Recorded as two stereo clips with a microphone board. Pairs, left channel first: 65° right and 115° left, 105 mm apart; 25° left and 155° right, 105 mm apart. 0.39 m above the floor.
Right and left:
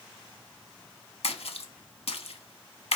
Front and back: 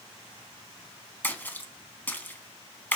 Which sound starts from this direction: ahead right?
A splash, at 1.2 s.